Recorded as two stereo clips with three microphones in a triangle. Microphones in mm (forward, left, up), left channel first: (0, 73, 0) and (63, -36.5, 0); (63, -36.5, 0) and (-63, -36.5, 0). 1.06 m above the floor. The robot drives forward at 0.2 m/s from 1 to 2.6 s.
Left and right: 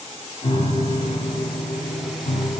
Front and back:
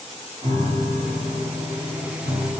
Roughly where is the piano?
Behind left.